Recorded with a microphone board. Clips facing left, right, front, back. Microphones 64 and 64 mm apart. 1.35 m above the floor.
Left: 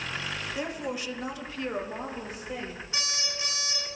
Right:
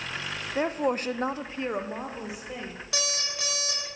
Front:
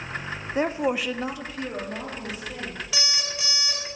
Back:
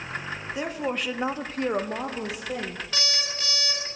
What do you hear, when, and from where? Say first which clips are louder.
0.6 s a woman speaking: right 10 dB, front 6 dB; 45° right, 0.7 m; by 2.8 s 175° right, 1.7 m
2.9 s an alarm clock: right 3 dB, even; 80° right, 4 m